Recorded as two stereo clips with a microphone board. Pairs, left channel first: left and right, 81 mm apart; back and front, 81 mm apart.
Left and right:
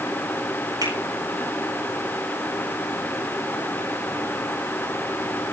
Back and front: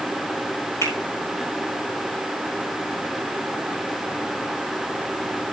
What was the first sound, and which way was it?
A finger snap, 125° right.